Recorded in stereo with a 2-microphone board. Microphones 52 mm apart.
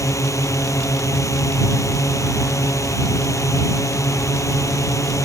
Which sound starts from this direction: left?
A drone, at 0.0 s.